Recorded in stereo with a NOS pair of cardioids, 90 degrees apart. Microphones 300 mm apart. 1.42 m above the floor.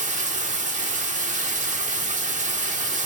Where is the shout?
No shout in this recording.